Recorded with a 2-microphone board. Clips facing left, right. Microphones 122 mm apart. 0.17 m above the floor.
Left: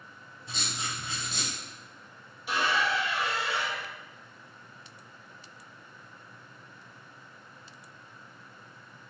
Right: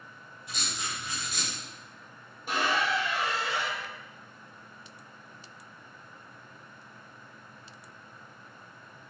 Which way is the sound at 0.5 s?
30° left (ahead or behind).